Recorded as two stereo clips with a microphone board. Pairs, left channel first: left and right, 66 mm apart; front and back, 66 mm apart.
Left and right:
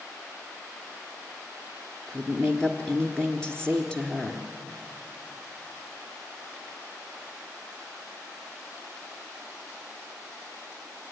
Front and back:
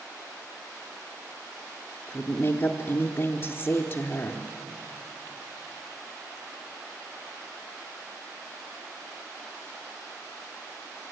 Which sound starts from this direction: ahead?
A woman speaking, at 2.1 s.